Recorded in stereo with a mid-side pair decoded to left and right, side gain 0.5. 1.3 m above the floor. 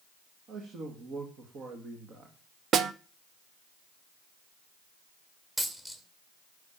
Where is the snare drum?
55° right, 0.8 m.